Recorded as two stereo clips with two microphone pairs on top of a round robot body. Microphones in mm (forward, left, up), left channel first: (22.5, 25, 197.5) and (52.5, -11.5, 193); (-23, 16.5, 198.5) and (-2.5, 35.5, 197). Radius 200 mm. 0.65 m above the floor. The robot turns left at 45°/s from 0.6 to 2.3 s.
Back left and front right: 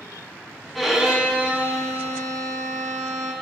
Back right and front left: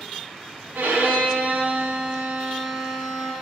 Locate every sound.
0.8 s a violin: 45° left, 1.9 m; by 3.3 s 25° right, 1.9 m